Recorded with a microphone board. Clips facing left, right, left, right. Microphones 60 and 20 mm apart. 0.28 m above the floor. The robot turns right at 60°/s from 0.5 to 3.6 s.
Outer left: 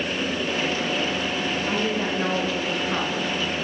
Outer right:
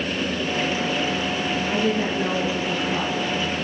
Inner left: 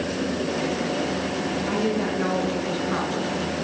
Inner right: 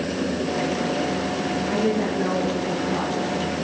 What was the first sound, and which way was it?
A woman speaking, 30° left.